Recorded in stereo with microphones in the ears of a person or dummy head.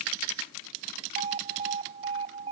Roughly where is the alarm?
Right.